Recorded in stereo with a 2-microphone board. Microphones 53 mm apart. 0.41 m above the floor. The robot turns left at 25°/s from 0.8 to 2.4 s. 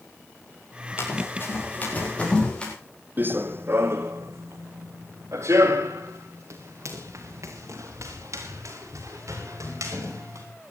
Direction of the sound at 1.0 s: 50° left (ahead or behind).